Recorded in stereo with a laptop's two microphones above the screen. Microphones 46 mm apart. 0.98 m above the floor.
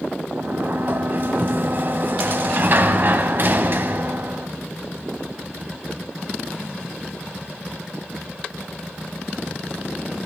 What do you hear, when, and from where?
0.3 s a sliding door: 50° right (ahead or behind), 1.2 m